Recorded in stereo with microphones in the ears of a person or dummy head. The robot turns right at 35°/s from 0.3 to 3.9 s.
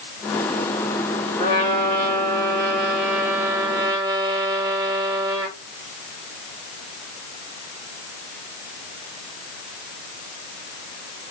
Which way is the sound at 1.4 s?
130° left.